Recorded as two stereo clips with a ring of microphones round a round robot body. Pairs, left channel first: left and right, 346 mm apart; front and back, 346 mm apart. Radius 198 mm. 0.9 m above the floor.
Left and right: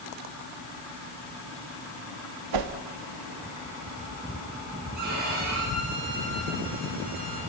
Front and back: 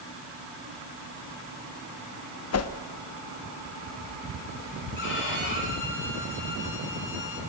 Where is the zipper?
No zipper in this recording.